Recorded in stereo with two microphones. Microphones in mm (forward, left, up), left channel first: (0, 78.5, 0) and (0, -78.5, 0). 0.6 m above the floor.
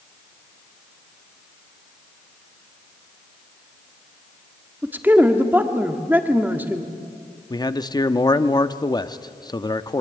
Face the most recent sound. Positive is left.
turn(degrees=25)  # may be behind; listen again after turning